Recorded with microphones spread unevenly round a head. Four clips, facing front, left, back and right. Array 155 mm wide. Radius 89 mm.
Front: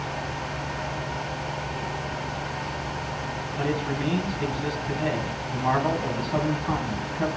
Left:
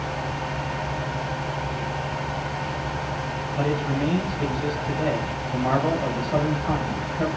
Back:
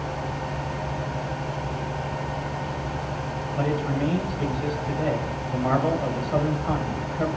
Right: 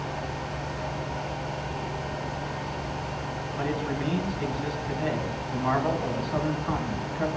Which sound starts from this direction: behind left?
A man speaking, at 3.5 s.